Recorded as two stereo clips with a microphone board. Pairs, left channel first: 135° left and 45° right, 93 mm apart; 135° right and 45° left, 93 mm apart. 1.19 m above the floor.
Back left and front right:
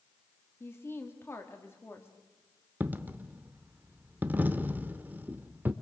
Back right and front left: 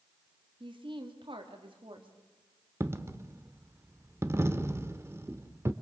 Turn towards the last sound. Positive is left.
turn(degrees=10)